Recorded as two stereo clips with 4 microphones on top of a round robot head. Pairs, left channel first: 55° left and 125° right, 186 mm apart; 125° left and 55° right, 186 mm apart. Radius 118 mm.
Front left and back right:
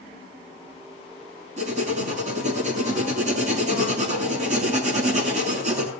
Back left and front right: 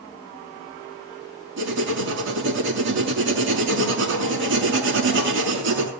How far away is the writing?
About 5.5 m.